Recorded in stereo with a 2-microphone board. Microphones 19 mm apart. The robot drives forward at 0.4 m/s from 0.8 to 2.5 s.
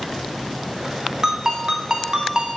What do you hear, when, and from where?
1.2 s a ringtone: 35° right (ahead or behind), 1.3 m; by 2.6 s 40° right (ahead or behind), 1.1 m